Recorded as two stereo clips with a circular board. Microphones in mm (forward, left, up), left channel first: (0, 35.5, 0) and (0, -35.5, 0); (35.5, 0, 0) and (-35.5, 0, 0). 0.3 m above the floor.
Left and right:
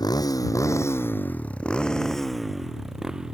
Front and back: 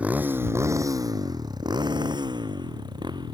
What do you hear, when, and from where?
0.0 s a motorcycle: 110° left; by 3.4 s 170° right